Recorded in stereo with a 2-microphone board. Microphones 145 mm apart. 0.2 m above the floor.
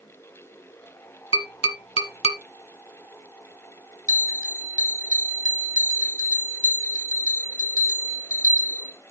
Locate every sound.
1.3 s tapping: 40° left (ahead or behind), 1.3 m
4.1 s a bell: 65° left (ahead or behind), 2.5 m